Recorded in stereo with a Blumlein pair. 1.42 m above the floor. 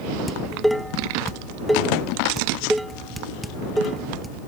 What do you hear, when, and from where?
0.3 s dishes clattering: straight ahead